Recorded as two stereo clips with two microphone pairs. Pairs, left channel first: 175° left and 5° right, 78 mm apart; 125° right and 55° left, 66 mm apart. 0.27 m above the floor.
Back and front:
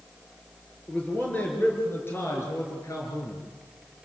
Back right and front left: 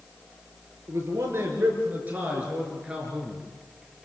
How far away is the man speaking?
About 6 m.